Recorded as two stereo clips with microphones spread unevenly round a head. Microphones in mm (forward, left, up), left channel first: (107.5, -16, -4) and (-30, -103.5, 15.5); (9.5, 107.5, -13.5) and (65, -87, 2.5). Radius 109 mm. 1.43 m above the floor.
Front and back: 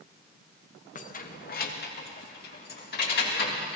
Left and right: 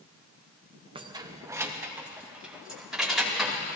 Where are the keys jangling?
10° right, 1.0 m; by 3.8 s 15° left, 3.5 m.